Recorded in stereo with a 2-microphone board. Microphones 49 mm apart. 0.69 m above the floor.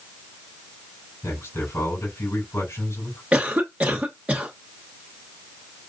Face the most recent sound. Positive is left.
turn(degrees=-25)  # may be behind; listen again after turning